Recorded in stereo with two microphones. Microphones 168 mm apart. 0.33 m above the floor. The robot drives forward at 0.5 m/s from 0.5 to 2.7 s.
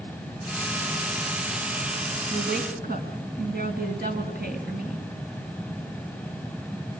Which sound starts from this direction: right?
A woman speaking, at 2.3 s.